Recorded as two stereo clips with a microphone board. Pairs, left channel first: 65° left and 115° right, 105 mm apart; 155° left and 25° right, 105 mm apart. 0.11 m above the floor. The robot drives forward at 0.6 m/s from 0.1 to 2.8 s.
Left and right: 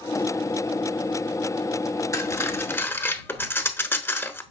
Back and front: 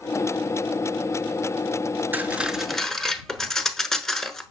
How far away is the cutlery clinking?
About 1.0 m.